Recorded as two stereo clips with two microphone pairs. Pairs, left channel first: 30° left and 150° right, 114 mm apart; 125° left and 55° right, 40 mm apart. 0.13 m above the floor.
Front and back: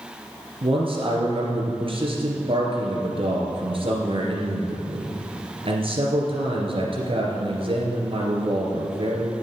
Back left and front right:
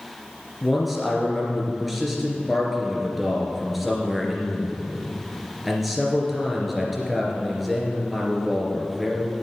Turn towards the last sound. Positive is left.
turn(degrees=-145)